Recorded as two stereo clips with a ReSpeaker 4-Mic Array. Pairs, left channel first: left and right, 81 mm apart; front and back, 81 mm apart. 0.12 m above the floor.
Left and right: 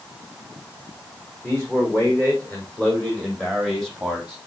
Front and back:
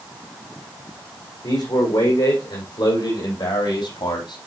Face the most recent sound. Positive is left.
turn(degrees=-5)